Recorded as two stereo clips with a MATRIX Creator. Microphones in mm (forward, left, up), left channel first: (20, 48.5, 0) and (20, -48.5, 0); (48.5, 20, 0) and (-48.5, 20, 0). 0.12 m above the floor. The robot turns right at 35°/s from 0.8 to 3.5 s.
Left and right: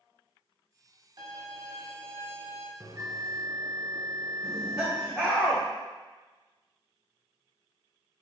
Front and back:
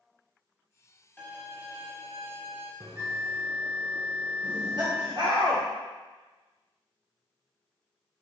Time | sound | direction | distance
1.2 | a violin | 70° right | 0.8 m
2.8 | a bell | 130° right | 0.7 m
4.4 | laughter | straight behind | 1.9 m